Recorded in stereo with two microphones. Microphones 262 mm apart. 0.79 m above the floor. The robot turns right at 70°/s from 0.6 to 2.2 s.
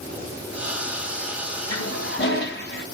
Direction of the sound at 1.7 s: 100° left.